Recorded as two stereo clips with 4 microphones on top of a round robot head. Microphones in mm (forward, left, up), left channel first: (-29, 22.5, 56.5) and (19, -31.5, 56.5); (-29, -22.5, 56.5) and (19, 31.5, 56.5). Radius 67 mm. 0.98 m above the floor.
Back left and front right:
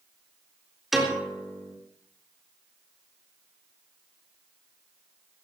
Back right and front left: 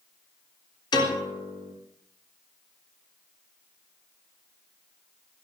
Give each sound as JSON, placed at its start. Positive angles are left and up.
{"t": 0.9, "sound": "a piano", "azimuth_deg": -135, "distance_m": 4.0}